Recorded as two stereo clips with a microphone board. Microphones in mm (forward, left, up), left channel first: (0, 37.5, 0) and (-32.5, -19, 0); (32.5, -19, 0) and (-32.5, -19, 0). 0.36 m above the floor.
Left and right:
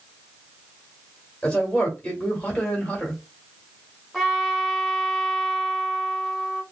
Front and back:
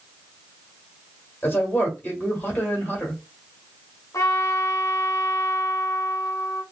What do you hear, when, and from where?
1.4 s a man speaking: 5° left, 1.3 m
4.1 s a trumpet: 30° right, 0.7 m